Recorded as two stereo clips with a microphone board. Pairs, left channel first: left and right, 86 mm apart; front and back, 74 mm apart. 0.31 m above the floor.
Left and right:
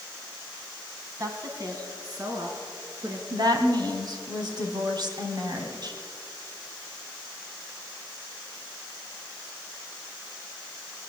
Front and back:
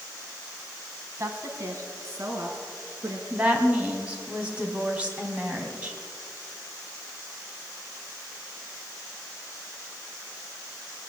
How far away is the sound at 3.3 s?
About 2.5 m.